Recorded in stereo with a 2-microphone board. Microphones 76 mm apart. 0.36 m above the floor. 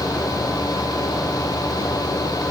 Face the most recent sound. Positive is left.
No sound to turn to.